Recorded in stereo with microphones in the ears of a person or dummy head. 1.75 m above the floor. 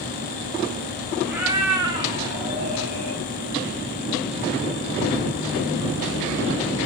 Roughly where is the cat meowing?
Centre.